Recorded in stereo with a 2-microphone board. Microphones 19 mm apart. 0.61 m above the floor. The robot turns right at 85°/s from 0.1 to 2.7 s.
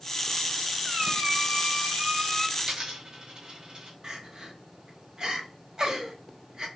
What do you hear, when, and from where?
0.8 s a squeak: 130° right, 2 m; by 2.5 s 10° left, 2 m
2.6 s a dropped coin: 45° right (ahead or behind), 0.8 m; by 3.9 s 35° right (ahead or behind), 0.8 m
4.0 s crying: 40° right (ahead or behind), 0.8 m